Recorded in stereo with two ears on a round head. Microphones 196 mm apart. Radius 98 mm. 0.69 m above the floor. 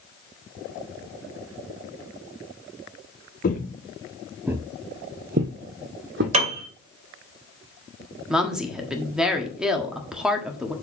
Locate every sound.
3.4 s footsteps: 45° left (ahead or behind), 0.9 m; by 6.2 s 60° right (ahead or behind), 1.6 m
6.3 s a piano: 30° right (ahead or behind), 2 m
8.3 s a woman speaking: 5° right (ahead or behind), 1.4 m